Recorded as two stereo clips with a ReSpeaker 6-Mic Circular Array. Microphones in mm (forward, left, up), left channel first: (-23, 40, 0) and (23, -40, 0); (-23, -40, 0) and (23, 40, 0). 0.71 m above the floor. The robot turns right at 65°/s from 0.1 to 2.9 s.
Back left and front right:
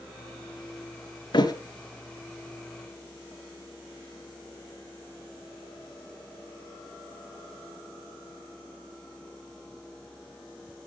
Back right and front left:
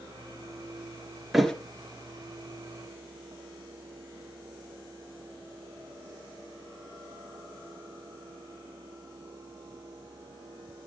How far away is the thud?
About 1.4 m.